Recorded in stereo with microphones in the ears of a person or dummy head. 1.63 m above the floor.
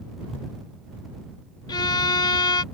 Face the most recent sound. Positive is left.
turn(degrees=20)  # may be behind; listen again after turning